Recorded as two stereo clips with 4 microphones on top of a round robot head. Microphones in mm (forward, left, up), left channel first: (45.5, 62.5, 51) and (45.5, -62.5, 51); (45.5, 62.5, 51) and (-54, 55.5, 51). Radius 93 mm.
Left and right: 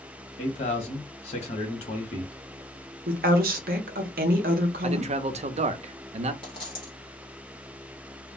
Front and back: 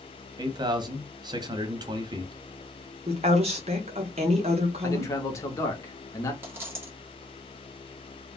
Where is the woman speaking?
125° right, 0.5 m.